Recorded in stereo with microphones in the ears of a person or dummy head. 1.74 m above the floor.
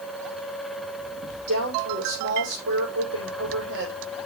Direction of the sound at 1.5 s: 70° right (ahead or behind).